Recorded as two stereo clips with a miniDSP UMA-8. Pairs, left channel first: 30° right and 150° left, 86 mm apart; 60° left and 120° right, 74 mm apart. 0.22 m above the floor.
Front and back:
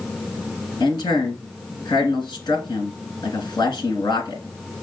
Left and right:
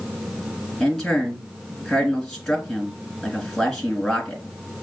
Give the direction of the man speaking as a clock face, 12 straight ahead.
1 o'clock.